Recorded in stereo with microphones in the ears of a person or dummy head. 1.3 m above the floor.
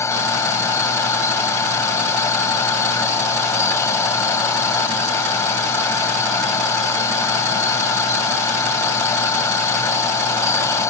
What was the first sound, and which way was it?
A machine running, 15° left (ahead or behind).